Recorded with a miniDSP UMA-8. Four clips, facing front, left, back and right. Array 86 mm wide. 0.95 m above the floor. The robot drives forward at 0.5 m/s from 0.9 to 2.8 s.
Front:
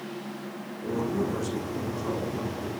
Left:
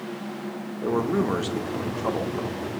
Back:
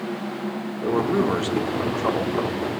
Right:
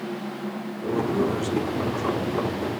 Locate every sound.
0.8 s a man speaking: 145° left, 1.1 m; by 2.8 s 165° left, 1.9 m